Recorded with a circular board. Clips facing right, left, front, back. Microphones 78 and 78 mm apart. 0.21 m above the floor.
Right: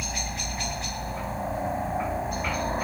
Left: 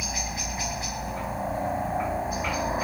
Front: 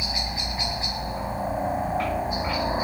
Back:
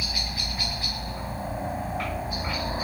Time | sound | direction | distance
0.0 | a helicopter | 10° left | ?